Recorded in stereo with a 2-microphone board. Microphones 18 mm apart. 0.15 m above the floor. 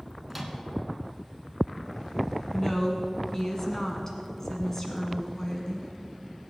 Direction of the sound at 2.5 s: 25° left (ahead or behind).